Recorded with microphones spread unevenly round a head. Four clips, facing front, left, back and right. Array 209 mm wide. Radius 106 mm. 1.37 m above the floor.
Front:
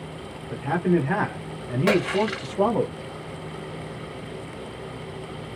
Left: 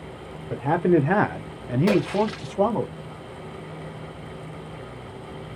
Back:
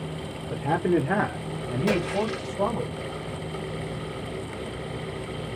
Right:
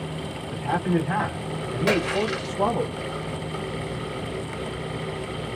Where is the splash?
20° right, 1.4 m.